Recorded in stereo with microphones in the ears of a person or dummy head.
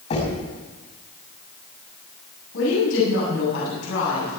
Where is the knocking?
40° left (ahead or behind), 6.5 m.